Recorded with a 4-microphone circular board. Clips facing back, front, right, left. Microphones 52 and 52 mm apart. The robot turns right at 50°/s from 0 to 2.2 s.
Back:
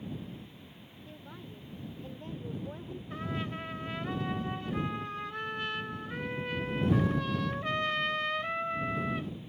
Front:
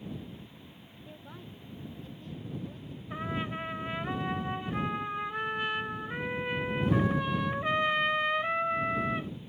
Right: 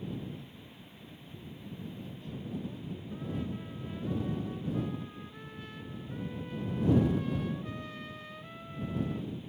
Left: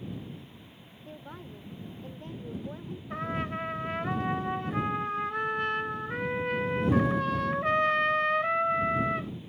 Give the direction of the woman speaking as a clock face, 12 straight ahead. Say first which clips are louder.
Even, left 6 dB; 9 o'clock.